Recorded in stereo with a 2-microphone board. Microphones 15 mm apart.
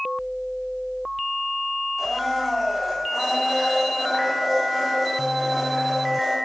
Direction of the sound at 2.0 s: 5° right (ahead or behind).